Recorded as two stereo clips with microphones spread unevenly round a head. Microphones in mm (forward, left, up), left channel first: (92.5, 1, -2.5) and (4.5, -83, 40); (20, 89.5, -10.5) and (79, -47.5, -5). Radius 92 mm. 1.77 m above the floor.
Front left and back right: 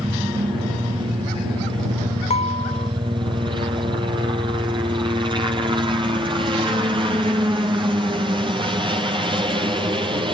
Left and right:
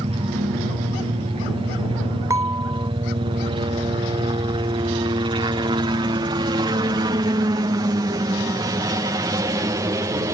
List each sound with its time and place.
0.0 s a helicopter: 80° right; by 10.3 s 100° right
2.3 s dishes clattering: straight ahead